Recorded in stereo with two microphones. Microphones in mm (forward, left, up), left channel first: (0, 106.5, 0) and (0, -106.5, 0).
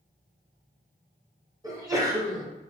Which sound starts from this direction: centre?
A sneeze, at 1.6 s.